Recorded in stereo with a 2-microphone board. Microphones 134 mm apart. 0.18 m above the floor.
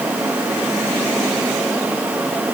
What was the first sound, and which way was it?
Only background noise.